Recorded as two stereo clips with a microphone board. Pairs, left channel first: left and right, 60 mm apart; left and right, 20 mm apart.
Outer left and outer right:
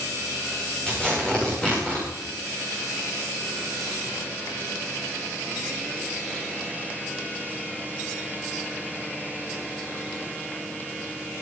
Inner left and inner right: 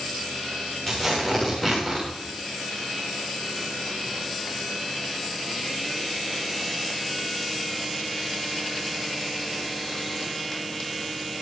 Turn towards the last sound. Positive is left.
turn(degrees=15)  # may be behind; listen again after turning